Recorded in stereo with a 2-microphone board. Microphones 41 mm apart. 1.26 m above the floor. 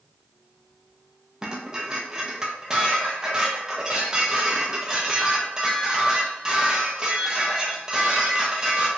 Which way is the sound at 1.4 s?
15° right (ahead or behind).